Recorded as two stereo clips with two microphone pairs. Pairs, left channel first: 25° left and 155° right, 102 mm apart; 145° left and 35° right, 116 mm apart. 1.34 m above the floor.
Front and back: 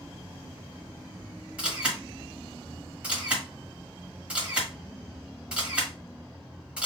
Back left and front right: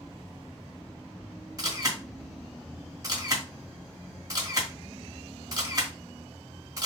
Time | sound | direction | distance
1.6 | a camera shutter | 80° right | 1.6 m